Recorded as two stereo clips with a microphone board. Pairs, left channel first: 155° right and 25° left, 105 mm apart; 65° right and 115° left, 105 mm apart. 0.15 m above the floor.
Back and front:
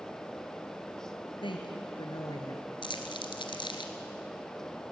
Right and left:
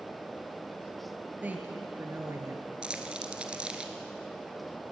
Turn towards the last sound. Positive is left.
turn(degrees=-170)